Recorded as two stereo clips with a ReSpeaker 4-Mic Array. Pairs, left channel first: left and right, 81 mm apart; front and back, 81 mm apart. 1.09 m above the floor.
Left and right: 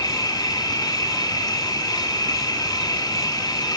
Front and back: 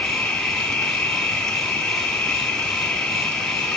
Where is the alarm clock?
I don't hear an alarm clock.